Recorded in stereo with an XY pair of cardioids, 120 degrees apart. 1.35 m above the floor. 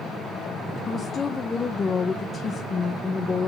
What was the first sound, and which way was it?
A woman speaking, 30° left.